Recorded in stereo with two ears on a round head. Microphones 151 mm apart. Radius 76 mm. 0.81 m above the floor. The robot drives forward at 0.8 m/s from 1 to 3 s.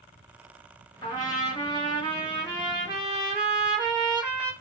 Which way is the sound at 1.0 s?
25° left (ahead or behind).